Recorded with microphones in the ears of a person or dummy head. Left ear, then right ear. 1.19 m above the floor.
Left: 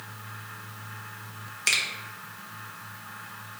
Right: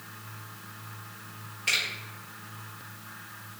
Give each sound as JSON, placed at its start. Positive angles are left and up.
{"t": 1.7, "sound": "a finger snap", "side_deg": 80, "distance_m": 0.7}